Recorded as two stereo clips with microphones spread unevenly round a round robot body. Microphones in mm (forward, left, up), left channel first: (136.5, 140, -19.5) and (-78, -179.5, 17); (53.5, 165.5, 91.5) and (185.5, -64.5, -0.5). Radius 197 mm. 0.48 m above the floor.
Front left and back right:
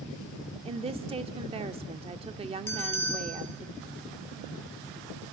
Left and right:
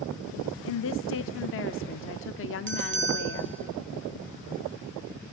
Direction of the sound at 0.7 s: 160° left.